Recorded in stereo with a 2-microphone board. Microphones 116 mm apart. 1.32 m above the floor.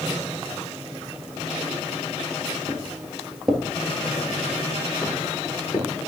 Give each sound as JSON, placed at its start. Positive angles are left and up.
{"t": 2.7, "sound": "footsteps", "side_deg": -30, "distance_m": 1.4}